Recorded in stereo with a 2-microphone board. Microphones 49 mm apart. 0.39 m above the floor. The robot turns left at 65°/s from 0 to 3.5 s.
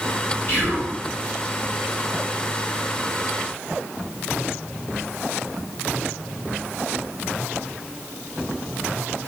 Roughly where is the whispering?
Left.